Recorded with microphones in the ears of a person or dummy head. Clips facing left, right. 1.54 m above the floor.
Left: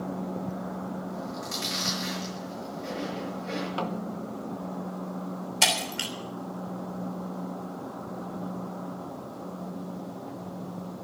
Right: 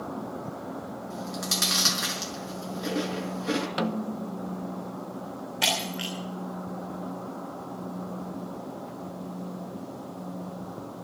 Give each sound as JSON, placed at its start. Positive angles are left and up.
{"t": 1.1, "sound": "chewing", "side_deg": -75, "distance_m": 5.0}
{"t": 3.8, "sound": "a snare drum", "side_deg": -20, "distance_m": 0.9}
{"t": 5.6, "sound": "breaking glass", "side_deg": 55, "distance_m": 3.0}